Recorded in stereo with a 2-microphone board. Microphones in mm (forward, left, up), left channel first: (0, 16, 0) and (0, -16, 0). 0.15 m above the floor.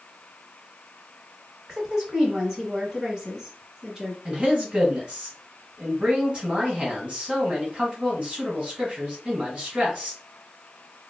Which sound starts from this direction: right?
A man speaking, at 4.2 s.